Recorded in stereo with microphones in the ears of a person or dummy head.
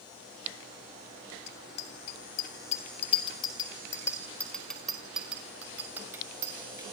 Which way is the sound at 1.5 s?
65° left (ahead or behind).